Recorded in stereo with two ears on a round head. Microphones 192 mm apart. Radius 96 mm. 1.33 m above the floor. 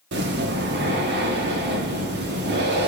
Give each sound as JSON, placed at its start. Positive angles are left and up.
{"t": 0.1, "sound": "breathing", "side_deg": -55, "distance_m": 1.3}